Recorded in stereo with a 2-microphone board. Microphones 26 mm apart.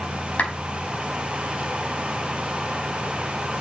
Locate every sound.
0.4 s a clap: 70° left (ahead or behind), 5 m